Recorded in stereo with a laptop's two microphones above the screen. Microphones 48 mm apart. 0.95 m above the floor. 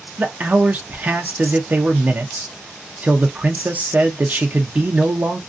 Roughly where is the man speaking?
Right.